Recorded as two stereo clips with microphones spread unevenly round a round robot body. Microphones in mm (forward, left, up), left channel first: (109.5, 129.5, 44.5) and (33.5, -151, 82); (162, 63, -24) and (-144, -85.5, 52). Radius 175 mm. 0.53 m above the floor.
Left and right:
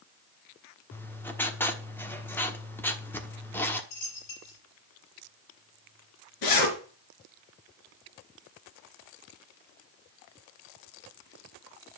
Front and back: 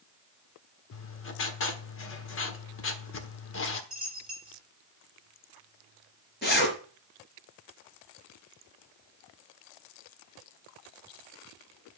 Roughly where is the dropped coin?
Behind left.